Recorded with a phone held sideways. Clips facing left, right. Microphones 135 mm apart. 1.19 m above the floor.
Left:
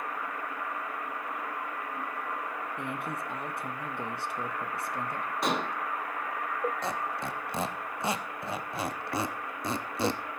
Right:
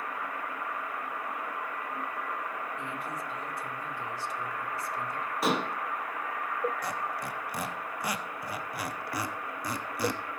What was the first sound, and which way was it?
A man speaking, 60° left (ahead or behind).